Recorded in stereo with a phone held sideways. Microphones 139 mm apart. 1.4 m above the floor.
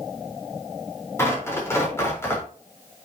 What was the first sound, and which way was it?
Tearing paper, 20° left (ahead or behind).